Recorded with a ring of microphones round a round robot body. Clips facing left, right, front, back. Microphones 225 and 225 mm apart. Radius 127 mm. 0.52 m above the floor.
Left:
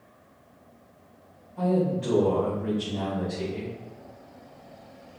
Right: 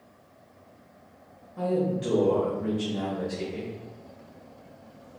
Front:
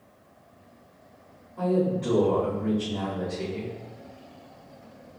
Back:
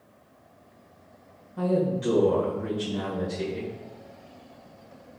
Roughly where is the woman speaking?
Behind right.